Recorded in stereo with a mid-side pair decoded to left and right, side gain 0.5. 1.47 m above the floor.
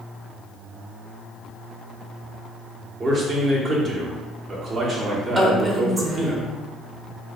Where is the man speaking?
45° right, 1.3 m.